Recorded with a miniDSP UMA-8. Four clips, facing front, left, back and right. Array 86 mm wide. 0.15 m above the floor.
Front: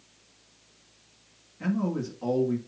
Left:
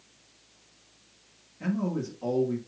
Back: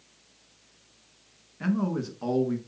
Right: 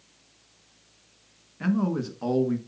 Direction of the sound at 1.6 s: 120° right.